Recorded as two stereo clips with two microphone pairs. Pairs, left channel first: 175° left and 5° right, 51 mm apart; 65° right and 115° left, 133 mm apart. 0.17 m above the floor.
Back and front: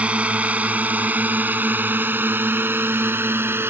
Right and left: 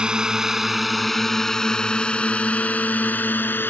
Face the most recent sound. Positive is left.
turn(degrees=5)